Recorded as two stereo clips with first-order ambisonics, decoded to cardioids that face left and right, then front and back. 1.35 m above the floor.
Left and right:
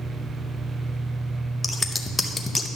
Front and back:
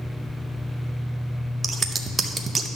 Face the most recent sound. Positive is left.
turn(degrees=150)